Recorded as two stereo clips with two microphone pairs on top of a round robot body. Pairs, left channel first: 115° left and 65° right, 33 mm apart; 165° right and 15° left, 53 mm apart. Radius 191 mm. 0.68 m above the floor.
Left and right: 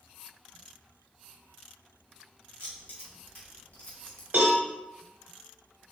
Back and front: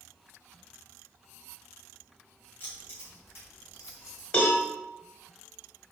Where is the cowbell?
105° right, 1.0 m.